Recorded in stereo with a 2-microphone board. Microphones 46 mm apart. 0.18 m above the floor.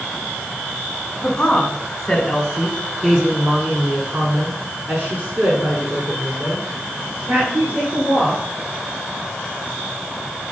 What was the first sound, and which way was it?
A woman speaking, 20° left (ahead or behind).